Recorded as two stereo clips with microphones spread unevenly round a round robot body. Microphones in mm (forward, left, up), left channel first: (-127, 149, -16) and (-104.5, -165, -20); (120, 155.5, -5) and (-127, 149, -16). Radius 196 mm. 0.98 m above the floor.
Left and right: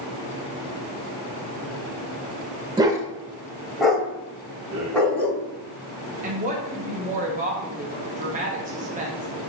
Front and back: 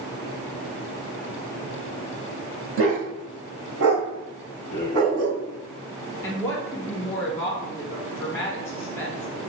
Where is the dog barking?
160° right, 0.9 m; by 5.4 s straight behind, 2 m.